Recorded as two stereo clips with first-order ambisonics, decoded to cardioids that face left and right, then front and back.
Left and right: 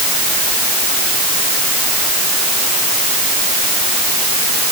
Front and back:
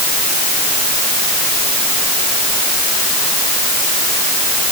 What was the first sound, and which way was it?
Only background noise.